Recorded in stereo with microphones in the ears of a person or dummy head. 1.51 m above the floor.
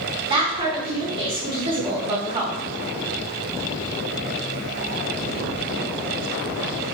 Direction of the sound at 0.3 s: 25° right (ahead or behind).